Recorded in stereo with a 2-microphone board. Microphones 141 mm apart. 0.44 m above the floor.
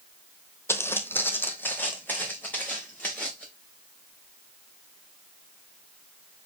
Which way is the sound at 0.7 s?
15° left (ahead or behind).